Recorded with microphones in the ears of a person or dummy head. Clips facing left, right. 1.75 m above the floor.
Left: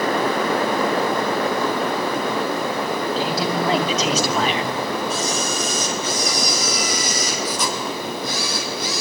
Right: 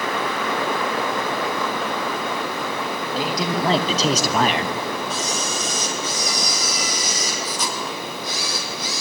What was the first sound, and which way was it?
A man speaking, 15° right (ahead or behind).